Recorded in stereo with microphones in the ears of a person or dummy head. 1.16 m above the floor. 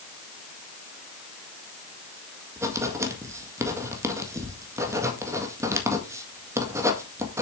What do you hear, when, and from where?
2.6 s writing: 15° right (ahead or behind), 1.7 m